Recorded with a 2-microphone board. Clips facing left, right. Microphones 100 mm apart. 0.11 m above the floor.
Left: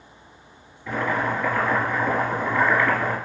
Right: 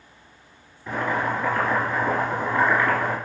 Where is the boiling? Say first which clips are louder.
Even; 30° right (ahead or behind), 1.6 m.